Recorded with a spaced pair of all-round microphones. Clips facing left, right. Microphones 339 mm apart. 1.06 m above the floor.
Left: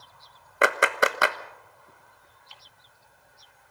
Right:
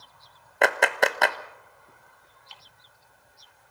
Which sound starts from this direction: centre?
A clap, at 0.6 s.